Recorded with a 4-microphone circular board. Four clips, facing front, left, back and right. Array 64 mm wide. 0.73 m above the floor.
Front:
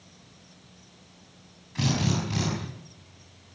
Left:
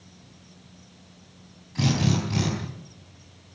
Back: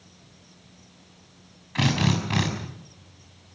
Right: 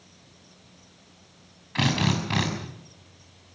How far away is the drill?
About 6.5 m.